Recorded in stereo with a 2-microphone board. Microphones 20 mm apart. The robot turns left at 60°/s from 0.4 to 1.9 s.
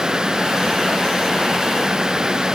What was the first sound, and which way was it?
Only background noise.